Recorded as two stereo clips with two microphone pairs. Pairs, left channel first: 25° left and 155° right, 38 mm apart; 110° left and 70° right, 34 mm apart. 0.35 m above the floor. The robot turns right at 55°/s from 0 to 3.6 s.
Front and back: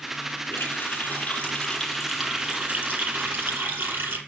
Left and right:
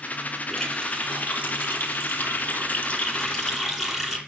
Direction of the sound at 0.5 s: 30° left.